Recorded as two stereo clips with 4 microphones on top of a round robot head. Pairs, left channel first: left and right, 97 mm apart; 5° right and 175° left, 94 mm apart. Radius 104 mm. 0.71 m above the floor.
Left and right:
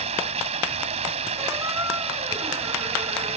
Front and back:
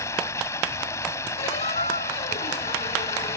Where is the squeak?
25° right.